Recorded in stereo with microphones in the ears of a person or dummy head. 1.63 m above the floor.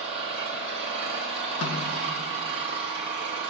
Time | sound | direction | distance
0.0 | an engine running | 30° right (ahead or behind) | 1.2 m
1.6 | a snare drum | 80° left | 2.5 m